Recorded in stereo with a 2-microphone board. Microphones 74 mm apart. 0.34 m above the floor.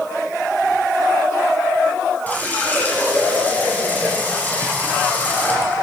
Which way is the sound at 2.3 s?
20° left (ahead or behind).